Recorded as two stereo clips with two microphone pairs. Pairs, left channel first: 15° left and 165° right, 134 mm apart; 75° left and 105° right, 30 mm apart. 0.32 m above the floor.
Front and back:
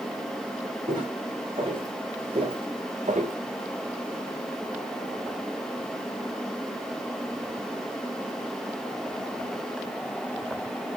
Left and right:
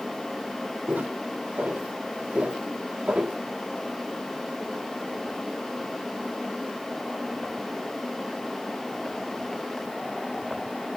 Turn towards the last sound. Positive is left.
turn(degrees=-145)